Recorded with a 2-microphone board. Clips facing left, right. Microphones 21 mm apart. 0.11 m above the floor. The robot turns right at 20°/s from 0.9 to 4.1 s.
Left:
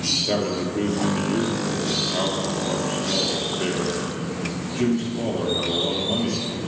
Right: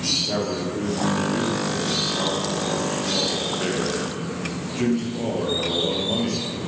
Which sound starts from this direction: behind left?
A man speaking, at 0.3 s.